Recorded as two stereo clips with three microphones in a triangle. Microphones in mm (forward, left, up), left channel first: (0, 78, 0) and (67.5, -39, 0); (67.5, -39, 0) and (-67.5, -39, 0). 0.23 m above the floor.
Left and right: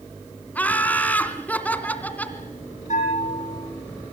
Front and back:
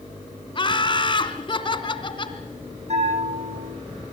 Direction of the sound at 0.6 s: 45° left.